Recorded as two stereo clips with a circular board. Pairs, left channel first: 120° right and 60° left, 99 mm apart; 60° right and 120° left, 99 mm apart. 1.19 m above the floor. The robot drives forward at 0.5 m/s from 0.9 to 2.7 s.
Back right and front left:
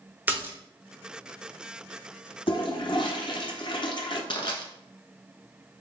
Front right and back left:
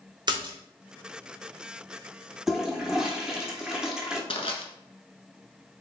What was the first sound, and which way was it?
A splash, 125° left.